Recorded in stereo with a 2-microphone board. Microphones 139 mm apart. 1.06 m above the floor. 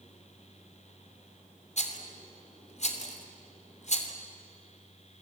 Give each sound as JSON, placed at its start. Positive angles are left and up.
{"t": 1.8, "sound": "a rattle", "side_deg": 55, "distance_m": 3.0}